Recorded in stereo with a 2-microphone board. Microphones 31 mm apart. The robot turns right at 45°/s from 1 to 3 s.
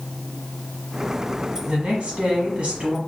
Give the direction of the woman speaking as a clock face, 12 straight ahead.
4 o'clock.